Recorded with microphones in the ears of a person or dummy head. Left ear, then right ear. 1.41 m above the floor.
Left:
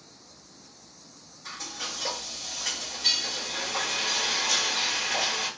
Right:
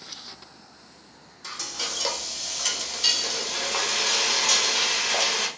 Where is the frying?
80° right, 1.0 m.